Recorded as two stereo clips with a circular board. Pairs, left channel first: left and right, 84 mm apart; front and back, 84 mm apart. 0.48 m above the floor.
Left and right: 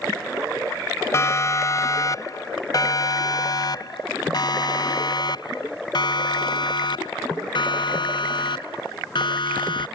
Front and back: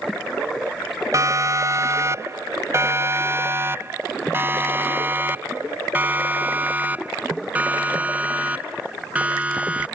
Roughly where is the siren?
Behind left.